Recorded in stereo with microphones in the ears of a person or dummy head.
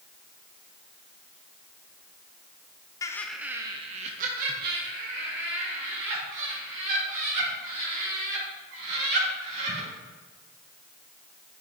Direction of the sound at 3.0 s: 20° left (ahead or behind).